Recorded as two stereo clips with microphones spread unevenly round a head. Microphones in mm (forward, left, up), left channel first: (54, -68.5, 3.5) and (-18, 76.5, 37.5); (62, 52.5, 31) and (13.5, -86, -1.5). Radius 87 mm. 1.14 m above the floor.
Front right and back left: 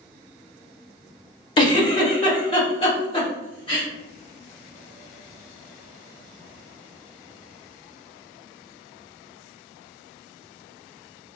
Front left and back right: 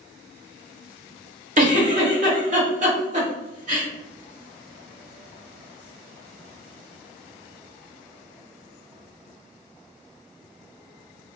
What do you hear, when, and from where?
1.6 s a giggle: 120° right, 0.9 m